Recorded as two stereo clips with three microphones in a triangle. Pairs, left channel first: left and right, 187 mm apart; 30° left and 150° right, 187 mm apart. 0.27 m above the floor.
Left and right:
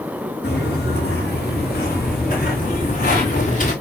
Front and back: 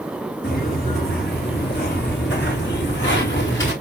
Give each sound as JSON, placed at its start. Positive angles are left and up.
{"t": 0.4, "sound": "footsteps", "azimuth_deg": 65, "distance_m": 4.0}